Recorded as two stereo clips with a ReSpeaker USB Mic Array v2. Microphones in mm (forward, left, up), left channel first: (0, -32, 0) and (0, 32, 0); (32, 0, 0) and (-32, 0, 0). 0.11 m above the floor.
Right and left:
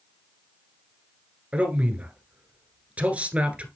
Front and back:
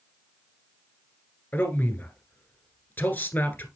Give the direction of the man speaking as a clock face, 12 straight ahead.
11 o'clock.